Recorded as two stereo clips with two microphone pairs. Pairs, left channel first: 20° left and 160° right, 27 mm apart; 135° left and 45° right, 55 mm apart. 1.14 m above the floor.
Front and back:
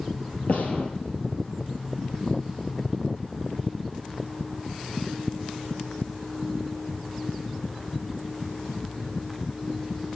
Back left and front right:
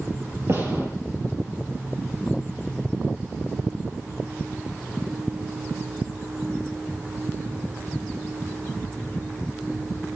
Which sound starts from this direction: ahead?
A gunshot, at 0.5 s.